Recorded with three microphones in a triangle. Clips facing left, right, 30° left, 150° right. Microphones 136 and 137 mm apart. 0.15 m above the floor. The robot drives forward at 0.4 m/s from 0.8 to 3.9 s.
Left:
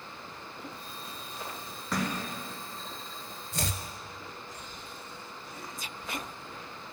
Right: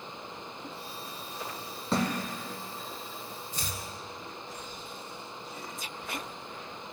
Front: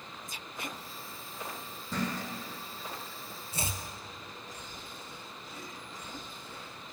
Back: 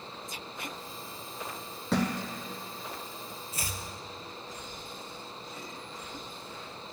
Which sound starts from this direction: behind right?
A thud, at 1.9 s.